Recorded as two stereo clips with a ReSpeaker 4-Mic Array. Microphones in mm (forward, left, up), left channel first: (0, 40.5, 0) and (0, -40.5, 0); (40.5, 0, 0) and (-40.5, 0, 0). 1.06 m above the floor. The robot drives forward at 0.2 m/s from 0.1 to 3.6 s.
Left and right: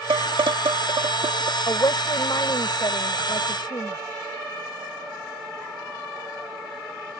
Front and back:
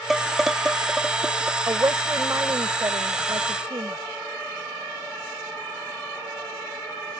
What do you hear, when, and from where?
0.1 s dishes clattering: 90° right; by 1.6 s 105° right
1.7 s a woman speaking: 125° left; by 4.0 s 130° left